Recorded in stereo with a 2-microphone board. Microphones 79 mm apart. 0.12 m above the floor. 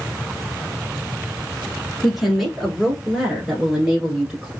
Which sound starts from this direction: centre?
A woman speaking, at 2.0 s.